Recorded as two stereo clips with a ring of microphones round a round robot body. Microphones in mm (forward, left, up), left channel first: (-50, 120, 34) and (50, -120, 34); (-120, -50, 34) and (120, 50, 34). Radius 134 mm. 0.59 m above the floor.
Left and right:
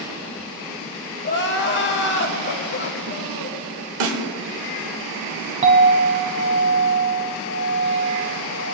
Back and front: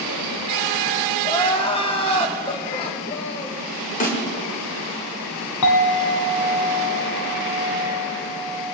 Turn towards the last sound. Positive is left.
turn(degrees=-135)